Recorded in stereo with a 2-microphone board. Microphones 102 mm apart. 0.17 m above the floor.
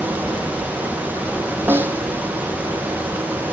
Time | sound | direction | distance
1.7 | a snare drum | 20° right (ahead or behind) | 2 m